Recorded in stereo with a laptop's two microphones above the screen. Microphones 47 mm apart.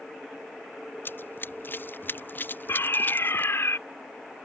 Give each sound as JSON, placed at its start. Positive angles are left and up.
{"t": 1.1, "sound": "running footsteps", "side_deg": 50}
{"t": 2.7, "sound": "a fire alarm", "side_deg": 65}